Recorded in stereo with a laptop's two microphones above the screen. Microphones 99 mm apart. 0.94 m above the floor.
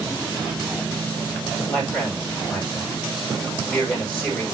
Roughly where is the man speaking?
Centre.